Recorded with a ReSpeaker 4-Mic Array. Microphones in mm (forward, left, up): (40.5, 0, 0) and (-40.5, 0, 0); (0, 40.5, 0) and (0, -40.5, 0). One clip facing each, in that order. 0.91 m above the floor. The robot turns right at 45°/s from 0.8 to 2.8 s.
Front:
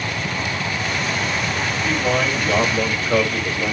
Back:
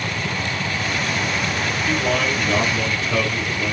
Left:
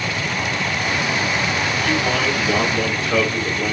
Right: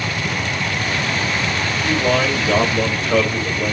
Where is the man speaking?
85° right, 2.5 m; by 3.8 s 40° right, 2.5 m.